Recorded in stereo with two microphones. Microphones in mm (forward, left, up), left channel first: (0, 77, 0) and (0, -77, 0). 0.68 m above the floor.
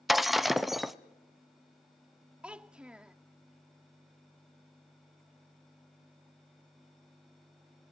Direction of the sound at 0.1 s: Centre (ahead or behind).